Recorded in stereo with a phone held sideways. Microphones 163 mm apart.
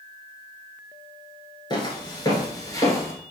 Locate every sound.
1.7 s footsteps: 25° left (ahead or behind), 1.0 m; by 3.1 s 15° left (ahead or behind), 1.2 m